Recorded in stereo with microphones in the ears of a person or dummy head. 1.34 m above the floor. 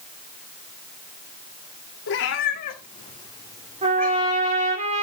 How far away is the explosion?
I don't hear an explosion.